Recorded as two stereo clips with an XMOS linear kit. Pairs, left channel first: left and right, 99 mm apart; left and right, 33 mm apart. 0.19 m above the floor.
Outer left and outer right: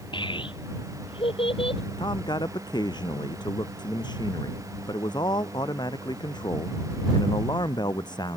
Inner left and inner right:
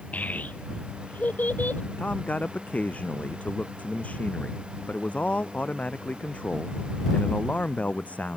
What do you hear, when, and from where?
0.1 s a child speaking: 55° left (ahead or behind); by 1.8 s 70° left (ahead or behind)
2.0 s a man speaking: 50° left (ahead or behind)